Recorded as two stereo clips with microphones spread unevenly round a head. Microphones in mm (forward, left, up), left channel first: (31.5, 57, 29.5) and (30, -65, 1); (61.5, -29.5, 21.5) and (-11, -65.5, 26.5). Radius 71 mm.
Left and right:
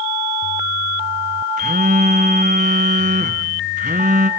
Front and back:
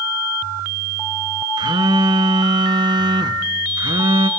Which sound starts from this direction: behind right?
A phone buzzing, at 1.6 s.